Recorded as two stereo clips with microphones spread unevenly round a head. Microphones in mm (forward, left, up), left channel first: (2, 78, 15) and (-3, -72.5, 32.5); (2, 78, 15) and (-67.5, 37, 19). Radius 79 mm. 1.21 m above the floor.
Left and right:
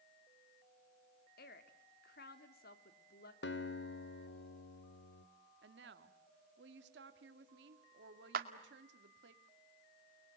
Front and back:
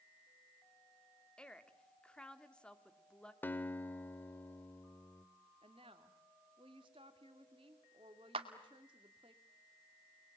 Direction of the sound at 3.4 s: 95° left.